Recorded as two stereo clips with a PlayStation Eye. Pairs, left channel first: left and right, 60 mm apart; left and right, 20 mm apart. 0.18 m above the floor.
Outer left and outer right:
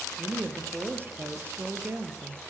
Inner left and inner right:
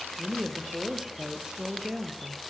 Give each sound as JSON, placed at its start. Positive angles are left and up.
{"t": 0.2, "sound": "a woman speaking", "side_deg": -35, "distance_m": 4.5}